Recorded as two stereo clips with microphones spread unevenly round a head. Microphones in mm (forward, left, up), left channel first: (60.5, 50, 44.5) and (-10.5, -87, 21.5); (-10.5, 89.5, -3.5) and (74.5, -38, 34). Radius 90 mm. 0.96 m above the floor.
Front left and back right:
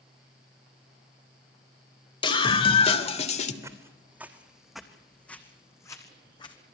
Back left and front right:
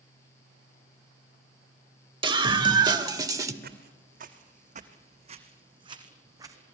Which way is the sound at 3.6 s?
45° right.